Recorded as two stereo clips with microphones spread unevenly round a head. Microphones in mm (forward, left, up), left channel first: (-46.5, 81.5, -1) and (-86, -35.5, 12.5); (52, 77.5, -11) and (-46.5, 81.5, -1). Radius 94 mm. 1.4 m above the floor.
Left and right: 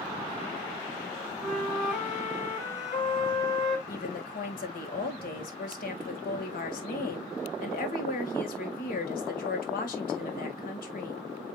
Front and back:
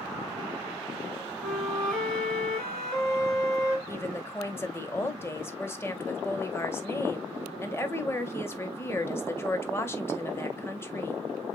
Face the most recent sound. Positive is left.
turn(degrees=65)